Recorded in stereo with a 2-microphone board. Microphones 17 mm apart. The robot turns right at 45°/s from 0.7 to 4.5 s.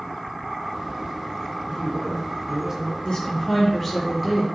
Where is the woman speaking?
130° left, 5 m; by 4.5 s 165° right, 5 m.